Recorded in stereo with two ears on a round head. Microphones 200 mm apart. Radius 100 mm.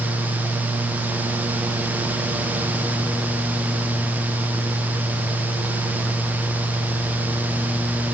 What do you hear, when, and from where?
Only background noise.